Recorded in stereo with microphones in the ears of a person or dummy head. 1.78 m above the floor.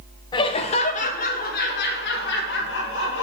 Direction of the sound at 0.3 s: 25° left (ahead or behind).